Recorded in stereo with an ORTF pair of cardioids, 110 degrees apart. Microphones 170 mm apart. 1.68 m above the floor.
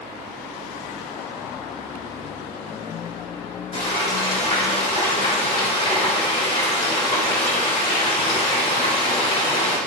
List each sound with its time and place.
3.7 s frying: 35° left, 3 m